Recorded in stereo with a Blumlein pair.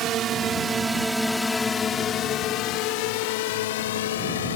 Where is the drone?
35° right; by 4.5 s 60° left.